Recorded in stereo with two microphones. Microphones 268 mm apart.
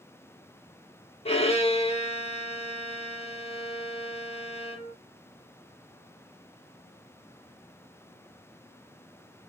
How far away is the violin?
About 0.9 m.